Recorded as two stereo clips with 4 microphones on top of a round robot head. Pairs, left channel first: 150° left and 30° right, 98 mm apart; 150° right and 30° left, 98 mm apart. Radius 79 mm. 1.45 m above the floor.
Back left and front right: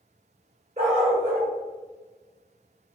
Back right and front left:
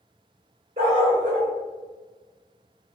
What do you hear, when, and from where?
0.8 s a dog barking: straight ahead, 1.6 m